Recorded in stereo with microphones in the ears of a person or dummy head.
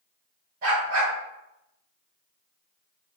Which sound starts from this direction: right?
A dog barking, at 0.6 s.